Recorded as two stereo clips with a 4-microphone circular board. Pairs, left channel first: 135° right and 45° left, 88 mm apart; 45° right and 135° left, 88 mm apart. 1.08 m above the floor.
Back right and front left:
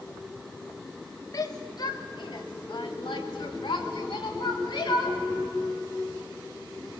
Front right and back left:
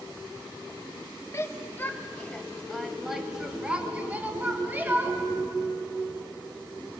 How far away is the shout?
About 1.4 m.